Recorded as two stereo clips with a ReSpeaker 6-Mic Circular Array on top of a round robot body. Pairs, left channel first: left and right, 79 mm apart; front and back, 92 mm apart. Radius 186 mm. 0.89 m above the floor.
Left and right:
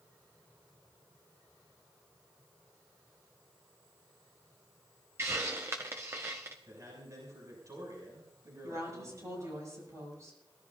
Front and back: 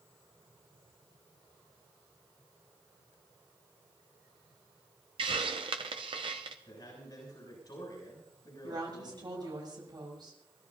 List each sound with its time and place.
5.2 s a hiss: 150° right, 0.8 m
6.7 s a man speaking: 45° right, 7 m
8.6 s a woman speaking: 140° right, 8 m